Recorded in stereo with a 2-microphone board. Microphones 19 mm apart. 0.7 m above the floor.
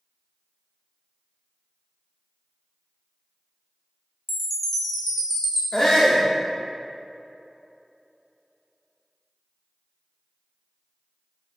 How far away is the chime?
About 1.4 m.